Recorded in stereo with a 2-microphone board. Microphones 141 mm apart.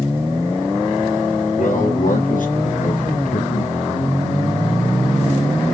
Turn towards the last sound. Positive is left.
turn(degrees=80)